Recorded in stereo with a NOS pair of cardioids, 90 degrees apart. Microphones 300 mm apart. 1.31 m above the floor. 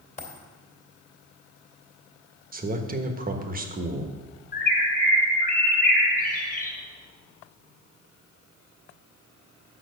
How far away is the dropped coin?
About 2.5 m.